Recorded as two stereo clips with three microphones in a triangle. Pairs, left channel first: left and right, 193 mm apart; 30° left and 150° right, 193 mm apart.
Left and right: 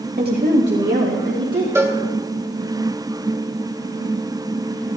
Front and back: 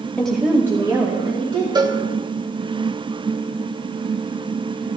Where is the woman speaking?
55° right, 0.9 m; by 1.6 s 85° right, 2 m.